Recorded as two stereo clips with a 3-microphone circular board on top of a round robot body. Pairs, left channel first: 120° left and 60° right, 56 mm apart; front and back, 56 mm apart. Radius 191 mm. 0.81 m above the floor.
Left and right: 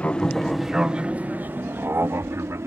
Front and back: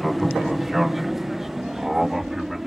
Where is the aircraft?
90° left; by 2.7 s 95° right.